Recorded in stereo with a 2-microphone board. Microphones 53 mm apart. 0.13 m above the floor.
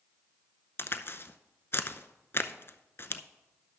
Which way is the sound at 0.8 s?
50° left (ahead or behind).